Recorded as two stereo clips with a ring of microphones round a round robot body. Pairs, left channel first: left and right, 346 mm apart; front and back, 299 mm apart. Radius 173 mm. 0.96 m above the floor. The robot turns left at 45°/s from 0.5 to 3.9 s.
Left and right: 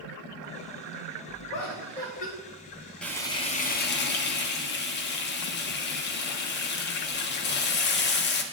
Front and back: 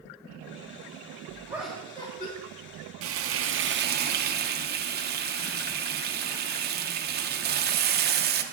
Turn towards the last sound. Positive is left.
turn(degrees=135)